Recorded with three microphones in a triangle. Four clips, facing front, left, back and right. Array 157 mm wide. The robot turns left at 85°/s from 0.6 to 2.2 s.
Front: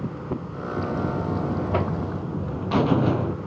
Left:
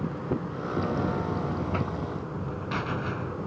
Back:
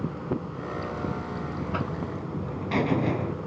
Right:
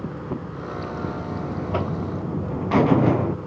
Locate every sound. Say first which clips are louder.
0.8 s a buzzer: left 3 dB, front 7 dB; 50° left; by 3.4 s 75° right